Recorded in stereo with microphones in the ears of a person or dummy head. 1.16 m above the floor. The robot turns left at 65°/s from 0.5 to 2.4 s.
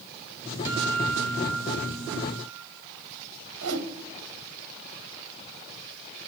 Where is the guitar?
15° right, 8 m; by 2.6 s 130° right, 8 m.